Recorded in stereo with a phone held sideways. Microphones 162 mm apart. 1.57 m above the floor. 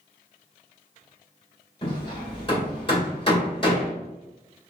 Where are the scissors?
I don't hear scissors.